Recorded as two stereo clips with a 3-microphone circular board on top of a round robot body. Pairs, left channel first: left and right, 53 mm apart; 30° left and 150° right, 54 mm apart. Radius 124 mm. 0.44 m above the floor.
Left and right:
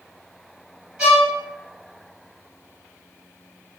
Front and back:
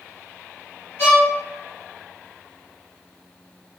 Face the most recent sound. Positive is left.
turn(degrees=-15)